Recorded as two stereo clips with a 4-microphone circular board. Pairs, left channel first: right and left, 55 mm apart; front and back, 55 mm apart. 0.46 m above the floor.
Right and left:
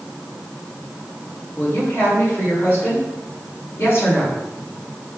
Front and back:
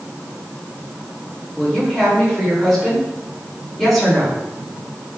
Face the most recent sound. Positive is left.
turn(degrees=-85)